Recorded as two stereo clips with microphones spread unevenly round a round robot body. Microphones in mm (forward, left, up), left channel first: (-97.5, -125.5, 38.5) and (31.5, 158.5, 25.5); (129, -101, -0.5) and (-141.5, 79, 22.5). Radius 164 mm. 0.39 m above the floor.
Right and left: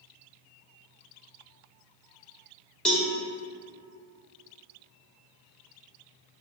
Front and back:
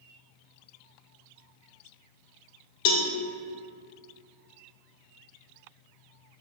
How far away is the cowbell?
About 0.5 m.